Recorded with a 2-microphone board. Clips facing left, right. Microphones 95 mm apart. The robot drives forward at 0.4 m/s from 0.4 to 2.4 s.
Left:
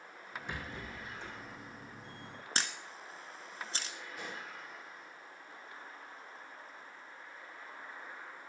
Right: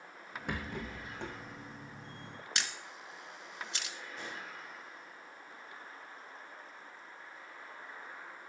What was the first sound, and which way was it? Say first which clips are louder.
A rattle: right 5 dB; 65° right (ahead or behind).